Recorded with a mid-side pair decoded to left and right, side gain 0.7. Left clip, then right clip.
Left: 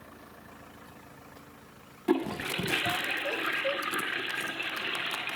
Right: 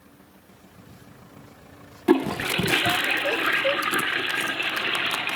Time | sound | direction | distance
2.1 | a toilet flushing | 35° right | 0.7 m